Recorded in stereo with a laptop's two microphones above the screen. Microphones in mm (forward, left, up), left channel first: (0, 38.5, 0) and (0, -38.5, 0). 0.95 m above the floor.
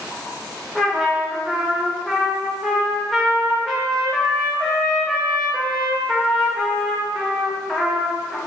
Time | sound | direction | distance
0.8 | a trumpet | centre (ahead or behind) | 0.7 m